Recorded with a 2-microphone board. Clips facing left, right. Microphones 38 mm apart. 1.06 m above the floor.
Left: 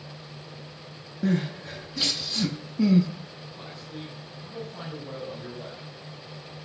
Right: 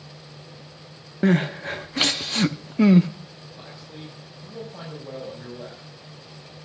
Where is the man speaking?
10° right (ahead or behind), 4.5 m.